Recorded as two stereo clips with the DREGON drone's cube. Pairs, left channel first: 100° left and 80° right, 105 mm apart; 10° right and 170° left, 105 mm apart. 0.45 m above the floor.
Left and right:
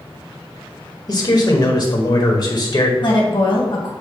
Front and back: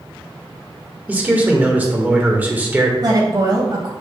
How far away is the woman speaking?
About 2.5 m.